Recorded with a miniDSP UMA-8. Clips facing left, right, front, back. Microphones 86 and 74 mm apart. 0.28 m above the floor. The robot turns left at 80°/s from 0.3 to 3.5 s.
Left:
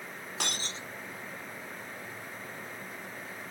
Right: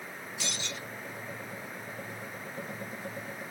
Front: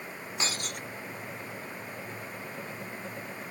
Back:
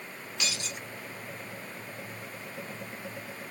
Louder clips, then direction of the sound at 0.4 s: Left 2 dB, front 1 dB; 55° left.